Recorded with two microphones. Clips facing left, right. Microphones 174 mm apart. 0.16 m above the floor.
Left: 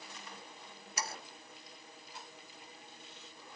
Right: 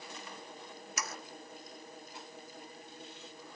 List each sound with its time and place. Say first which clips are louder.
1.0 s sawing: left 1 dB; 30° left (ahead or behind)